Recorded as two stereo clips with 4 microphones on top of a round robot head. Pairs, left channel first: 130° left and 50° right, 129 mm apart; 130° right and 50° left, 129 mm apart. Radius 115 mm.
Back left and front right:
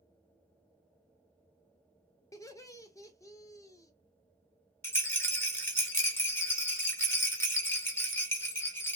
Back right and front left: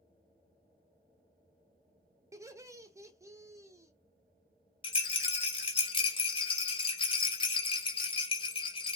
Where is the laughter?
90° left, 0.9 m.